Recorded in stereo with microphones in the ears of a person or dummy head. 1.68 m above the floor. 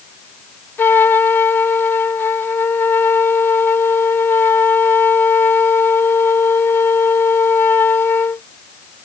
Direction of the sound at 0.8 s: 15° left (ahead or behind).